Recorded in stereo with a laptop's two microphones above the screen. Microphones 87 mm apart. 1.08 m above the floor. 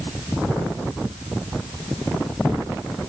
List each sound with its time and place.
Only background noise.